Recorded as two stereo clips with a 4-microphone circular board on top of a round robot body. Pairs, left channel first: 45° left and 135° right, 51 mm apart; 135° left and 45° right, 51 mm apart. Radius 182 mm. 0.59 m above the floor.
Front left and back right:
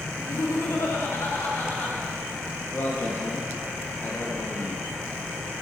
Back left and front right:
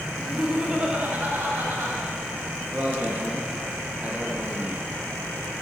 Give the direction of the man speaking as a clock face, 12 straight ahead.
12 o'clock.